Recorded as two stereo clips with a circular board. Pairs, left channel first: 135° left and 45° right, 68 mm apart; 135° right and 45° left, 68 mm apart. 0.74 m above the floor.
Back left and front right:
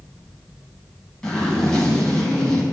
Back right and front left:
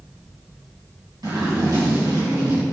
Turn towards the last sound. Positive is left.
turn(degrees=55)